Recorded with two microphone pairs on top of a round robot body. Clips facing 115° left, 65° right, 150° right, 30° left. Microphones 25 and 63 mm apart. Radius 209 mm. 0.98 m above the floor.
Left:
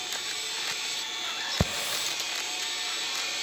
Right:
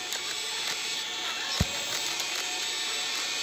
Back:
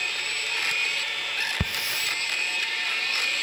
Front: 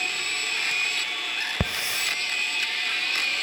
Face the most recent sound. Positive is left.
turn(degrees=105)